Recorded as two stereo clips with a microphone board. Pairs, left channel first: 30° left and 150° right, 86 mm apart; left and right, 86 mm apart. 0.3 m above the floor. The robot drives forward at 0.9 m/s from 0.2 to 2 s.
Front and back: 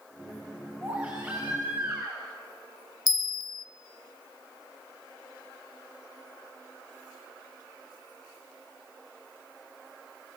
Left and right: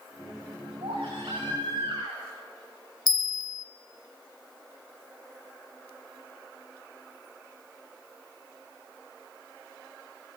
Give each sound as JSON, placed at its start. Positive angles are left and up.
{"t": 0.8, "sound": "a baby crying", "azimuth_deg": -80, "distance_m": 10.0}
{"t": 3.1, "sound": "a bell", "azimuth_deg": 60, "distance_m": 0.7}